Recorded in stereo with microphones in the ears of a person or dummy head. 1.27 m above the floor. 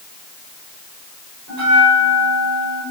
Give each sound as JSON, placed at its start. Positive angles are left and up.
{"t": 1.5, "sound": "a bell", "side_deg": -70, "distance_m": 4.0}